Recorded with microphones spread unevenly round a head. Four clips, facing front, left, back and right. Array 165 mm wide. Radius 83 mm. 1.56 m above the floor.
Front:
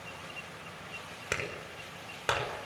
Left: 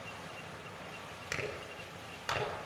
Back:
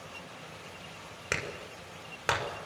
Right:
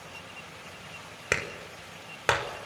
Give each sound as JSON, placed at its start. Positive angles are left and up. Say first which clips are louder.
{"t": 1.3, "sound": "a clap", "louder": "right 7 dB, back 1 dB", "azimuth_deg": -90, "distance_m": 6.0}